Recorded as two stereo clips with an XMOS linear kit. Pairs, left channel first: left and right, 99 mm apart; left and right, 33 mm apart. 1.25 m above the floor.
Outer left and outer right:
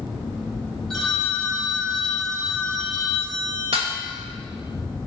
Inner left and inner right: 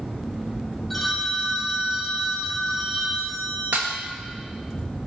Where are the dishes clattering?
75° right (ahead or behind), 1.1 m.